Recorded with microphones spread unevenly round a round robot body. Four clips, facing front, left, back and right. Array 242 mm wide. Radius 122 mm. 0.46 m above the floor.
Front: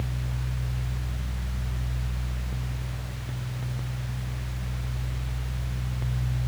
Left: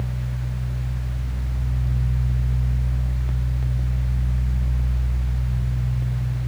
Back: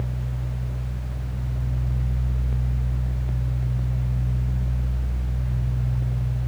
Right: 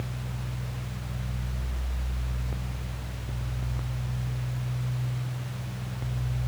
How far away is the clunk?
I don't hear a clunk.